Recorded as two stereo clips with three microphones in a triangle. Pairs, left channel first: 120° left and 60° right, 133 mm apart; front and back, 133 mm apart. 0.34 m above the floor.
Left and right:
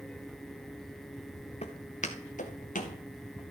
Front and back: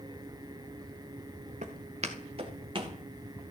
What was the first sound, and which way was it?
Footsteps, 155° left.